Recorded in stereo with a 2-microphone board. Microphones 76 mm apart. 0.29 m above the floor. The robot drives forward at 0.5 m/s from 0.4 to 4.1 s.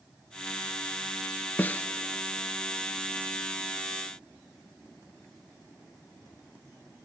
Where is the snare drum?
25° left (ahead or behind), 0.7 m; by 1.9 s 20° left (ahead or behind), 0.8 m.